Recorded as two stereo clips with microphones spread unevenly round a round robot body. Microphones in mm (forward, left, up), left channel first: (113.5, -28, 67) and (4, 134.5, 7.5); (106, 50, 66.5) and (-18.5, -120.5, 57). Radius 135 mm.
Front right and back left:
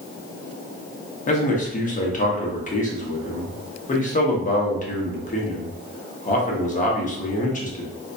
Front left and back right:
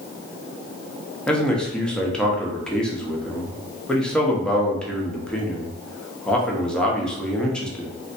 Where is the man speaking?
30° right, 1.0 m.